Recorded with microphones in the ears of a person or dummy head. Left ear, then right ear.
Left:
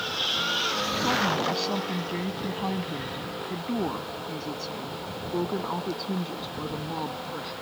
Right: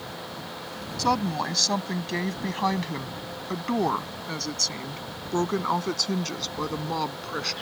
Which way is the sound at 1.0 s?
55° right (ahead or behind).